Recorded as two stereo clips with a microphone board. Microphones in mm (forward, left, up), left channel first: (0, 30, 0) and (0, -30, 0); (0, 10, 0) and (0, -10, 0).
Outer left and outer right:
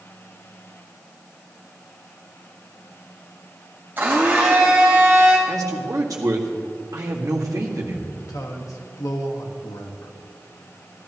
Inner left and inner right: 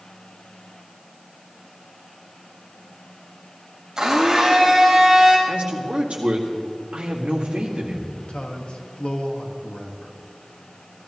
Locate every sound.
4.0 s a blender: 30° right (ahead or behind), 3 m
5.5 s a man speaking: 75° right (ahead or behind), 1.8 m
8.2 s a man speaking: 75° left (ahead or behind), 1.4 m